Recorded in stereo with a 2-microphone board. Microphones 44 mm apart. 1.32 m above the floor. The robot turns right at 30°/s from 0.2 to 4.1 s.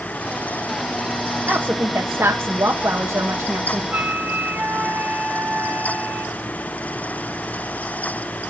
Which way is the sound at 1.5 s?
135° right.